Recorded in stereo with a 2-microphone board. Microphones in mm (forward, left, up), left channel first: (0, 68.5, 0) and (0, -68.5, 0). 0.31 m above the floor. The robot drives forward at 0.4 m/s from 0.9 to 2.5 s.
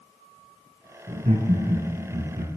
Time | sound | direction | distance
1.1 | laughter | 65° right (ahead or behind) | 2.5 m